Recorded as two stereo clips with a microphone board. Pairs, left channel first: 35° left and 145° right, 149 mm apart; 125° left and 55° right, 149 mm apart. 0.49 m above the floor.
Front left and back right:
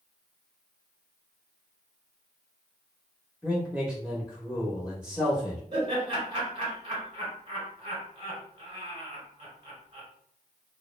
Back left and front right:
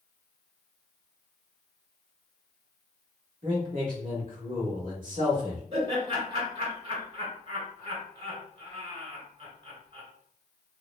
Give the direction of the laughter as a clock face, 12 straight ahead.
3 o'clock.